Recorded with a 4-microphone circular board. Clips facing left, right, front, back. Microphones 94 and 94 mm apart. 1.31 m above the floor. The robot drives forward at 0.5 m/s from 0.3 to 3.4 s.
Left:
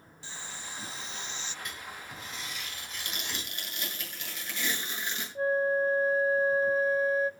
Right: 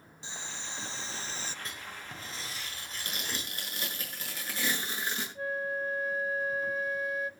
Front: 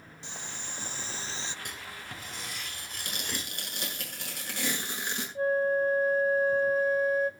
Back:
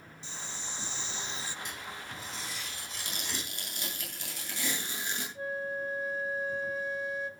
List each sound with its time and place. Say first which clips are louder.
0.2 s boiling: right 1 dB, front 1 dB; 20° right, 0.9 m; by 1.6 s 60° right, 0.5 m
1.6 s writing: left 1 dB, back 1 dB; 30° right, 4.5 m; by 3.5 s 40° right, 3.5 m
3.0 s tearing paper: right 1 dB, front 2 dB; 35° right, 8.5 m
5.3 s a flute: left 10 dB, front 12 dB; 40° left, 0.6 m